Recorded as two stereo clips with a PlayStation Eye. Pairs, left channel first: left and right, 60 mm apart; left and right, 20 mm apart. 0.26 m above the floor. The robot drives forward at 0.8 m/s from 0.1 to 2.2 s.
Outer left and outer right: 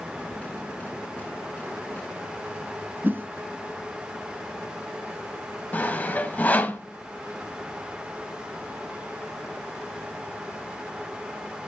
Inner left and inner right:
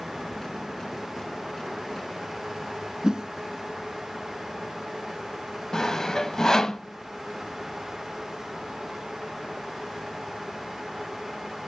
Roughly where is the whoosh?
Right.